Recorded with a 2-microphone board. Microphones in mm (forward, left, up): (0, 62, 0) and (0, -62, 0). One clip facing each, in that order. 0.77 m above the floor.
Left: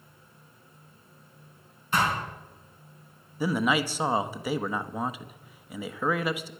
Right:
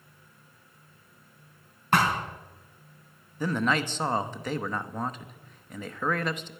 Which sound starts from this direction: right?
A thud, at 1.9 s.